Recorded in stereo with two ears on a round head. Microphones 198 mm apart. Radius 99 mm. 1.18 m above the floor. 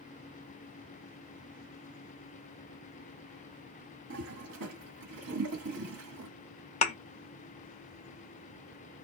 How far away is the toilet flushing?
About 1.6 m.